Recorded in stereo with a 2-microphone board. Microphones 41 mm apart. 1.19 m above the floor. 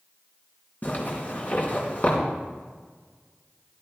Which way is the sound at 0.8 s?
45° left (ahead or behind).